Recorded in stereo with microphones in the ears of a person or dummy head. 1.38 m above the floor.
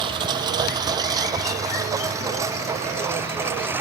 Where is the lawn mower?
30° right (ahead or behind); by 3.8 s 15° right (ahead or behind).